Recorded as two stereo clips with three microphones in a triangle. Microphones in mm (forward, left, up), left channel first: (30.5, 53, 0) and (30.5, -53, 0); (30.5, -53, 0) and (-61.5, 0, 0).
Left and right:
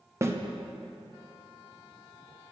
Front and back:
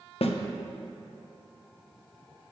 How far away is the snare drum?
About 0.7 m.